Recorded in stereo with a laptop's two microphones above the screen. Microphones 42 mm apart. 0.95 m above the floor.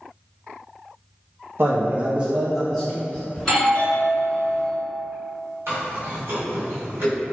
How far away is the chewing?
About 1.5 m.